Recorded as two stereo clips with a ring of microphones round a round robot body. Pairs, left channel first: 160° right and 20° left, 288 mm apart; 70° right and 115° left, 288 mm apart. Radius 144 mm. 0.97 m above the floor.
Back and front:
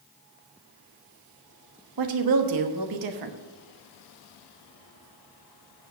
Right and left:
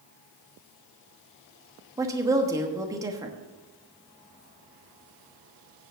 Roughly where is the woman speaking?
Ahead left.